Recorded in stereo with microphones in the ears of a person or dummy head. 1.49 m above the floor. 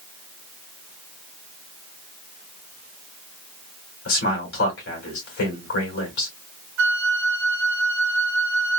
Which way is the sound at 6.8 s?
75° right (ahead or behind).